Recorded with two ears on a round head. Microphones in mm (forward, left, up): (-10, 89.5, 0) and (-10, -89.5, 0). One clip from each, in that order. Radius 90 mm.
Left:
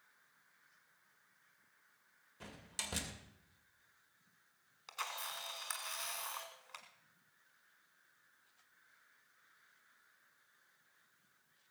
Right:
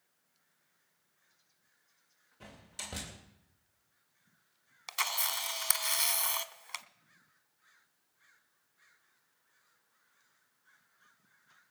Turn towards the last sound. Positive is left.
turn(degrees=-70)  # may be behind; listen again after turning